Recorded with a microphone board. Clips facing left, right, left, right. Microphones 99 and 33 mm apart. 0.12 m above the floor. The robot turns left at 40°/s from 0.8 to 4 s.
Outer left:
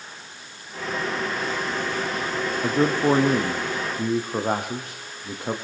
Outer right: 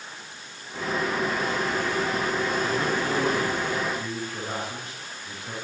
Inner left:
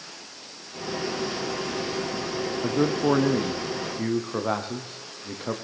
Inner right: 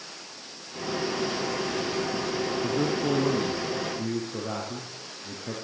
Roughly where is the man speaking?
Behind left.